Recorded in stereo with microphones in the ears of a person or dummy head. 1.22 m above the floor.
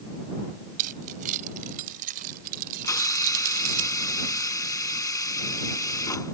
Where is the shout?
No shout in this recording.